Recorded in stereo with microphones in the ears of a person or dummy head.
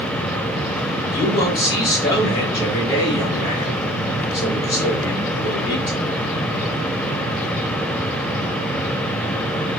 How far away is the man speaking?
About 1.3 m.